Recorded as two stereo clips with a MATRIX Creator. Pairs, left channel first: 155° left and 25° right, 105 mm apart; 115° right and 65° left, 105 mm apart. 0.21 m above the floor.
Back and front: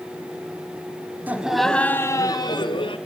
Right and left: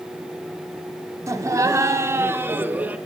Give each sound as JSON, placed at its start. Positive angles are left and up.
{"t": 1.3, "sound": "laughter", "azimuth_deg": 40, "distance_m": 1.3}